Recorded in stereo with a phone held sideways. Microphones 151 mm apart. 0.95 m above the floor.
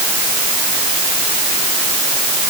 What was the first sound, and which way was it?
Only background noise.